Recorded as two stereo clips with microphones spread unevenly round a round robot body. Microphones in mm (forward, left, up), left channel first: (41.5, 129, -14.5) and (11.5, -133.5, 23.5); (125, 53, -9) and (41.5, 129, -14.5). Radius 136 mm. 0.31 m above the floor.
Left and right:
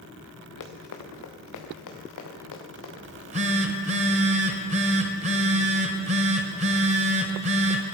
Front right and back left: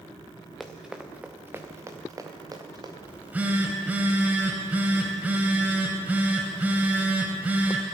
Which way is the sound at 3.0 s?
155° right.